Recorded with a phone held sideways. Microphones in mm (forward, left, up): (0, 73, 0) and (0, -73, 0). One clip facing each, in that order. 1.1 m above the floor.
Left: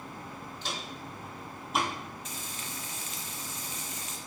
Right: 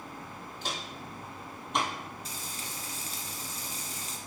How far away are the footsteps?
About 1.9 m.